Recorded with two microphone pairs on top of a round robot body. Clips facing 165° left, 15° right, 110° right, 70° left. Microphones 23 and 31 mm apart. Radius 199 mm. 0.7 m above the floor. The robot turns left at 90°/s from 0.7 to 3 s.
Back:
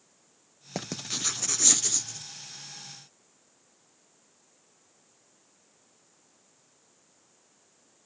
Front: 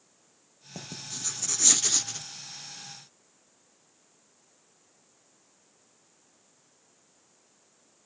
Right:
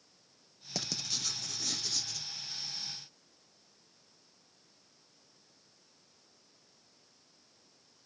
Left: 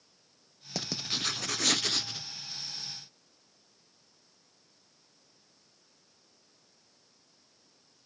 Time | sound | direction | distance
0.8 | writing | 145° left | 0.5 m